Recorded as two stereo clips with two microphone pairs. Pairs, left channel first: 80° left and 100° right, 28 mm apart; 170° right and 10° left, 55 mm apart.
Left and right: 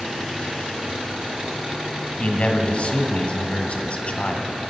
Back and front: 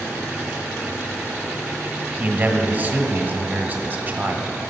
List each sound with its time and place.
2.2 s a man speaking: 50° left, 1.6 m